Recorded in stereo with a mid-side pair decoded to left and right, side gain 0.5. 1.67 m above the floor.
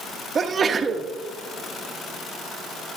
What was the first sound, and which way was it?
A sneeze, 40° right.